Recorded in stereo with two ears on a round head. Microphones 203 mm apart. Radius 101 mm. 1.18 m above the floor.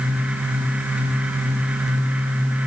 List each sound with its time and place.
Only background noise.